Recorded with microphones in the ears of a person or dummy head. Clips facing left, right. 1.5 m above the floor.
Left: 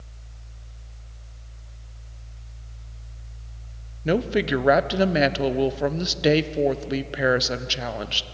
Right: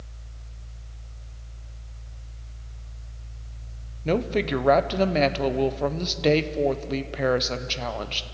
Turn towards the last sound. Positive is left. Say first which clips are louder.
# left 2 dB
turn(degrees=10)  # may be behind; listen again after turning